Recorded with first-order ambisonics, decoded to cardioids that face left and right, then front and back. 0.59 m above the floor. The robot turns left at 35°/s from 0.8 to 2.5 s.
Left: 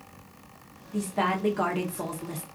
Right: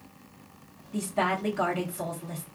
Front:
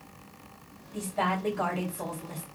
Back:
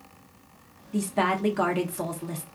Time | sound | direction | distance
0.9 | a woman speaking | 175° right | 0.8 m